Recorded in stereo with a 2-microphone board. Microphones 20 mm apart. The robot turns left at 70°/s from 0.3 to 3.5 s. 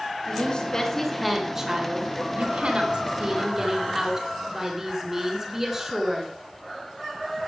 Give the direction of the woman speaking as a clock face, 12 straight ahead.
10 o'clock.